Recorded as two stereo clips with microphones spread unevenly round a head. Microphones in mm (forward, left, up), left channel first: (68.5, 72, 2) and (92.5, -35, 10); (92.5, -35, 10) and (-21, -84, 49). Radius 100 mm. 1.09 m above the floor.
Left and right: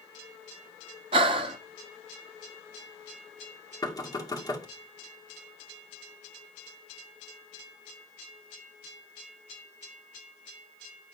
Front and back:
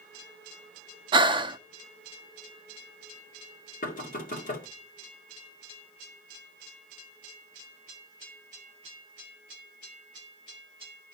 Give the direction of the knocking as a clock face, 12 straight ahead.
10 o'clock.